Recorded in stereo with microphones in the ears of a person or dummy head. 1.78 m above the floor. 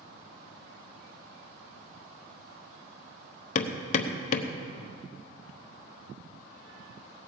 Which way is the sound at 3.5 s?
45° left (ahead or behind).